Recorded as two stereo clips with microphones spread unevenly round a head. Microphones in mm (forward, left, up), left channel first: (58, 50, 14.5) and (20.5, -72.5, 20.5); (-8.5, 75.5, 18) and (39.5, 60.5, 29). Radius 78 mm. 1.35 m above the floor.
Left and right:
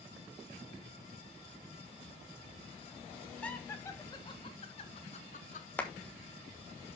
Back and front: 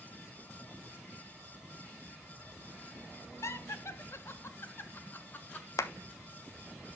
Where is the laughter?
155° left, 1.5 m; by 5.7 s 115° left, 2 m.